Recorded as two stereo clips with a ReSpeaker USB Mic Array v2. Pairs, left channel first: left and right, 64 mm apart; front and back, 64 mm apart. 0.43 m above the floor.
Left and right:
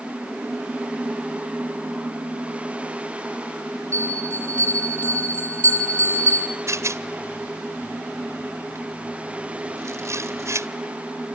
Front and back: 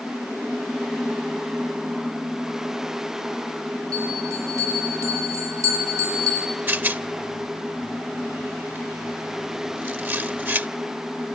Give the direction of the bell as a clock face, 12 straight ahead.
7 o'clock.